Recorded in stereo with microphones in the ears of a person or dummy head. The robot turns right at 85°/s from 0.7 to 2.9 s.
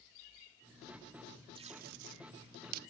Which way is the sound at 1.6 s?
25° right (ahead or behind).